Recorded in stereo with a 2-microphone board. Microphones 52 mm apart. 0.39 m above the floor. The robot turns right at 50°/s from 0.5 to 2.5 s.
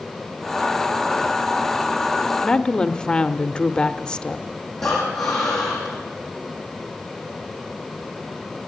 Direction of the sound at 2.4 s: 15° left (ahead or behind).